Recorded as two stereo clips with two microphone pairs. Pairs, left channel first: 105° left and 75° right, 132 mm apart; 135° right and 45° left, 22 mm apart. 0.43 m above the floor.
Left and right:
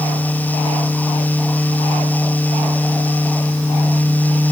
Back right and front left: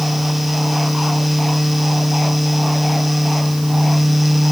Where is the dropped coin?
No dropped coin in this recording.